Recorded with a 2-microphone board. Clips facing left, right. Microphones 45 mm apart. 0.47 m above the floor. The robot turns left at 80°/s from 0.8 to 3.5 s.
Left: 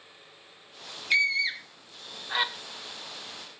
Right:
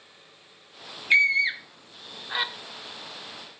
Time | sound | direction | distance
1.1 | a scream | 25° right (ahead or behind) | 0.8 m